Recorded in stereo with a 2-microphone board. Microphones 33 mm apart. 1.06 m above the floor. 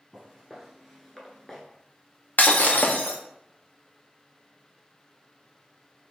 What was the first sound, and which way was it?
Footsteps, 5° right (ahead or behind).